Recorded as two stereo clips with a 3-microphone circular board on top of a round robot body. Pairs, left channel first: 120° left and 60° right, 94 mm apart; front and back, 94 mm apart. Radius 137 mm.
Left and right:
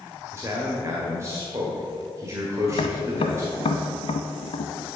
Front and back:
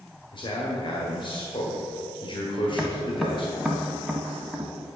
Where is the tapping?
95° left, 0.9 m.